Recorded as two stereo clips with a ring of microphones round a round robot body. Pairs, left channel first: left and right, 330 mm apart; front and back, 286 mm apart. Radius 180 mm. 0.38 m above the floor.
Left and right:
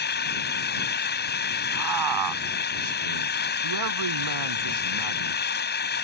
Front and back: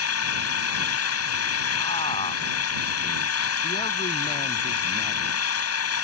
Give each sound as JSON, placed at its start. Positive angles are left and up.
{"t": 0.0, "sound": "an engine running", "azimuth_deg": 30}
{"t": 1.7, "sound": "a man speaking", "azimuth_deg": -75}